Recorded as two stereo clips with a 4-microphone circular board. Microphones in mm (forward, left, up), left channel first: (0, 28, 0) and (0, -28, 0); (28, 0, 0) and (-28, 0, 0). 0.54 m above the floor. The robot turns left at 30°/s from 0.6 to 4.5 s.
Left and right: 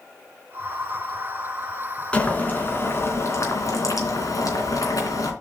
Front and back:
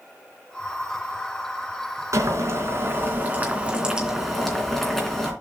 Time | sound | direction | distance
2.1 | boiling | 160° left | 3 m